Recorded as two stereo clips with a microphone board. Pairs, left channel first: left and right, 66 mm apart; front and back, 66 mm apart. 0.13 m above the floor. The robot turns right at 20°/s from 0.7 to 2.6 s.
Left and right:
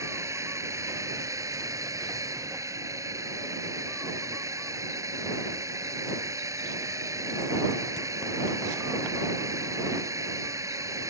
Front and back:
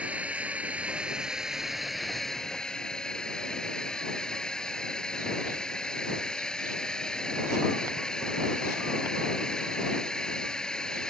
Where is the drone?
115° right; by 11.1 s 75° right.